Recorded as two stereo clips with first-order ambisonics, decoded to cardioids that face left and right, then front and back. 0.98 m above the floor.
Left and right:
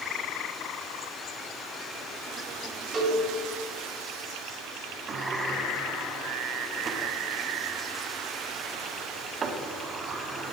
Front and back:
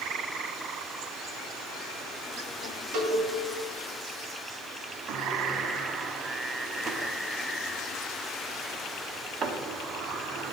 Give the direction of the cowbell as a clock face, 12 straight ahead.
5 o'clock.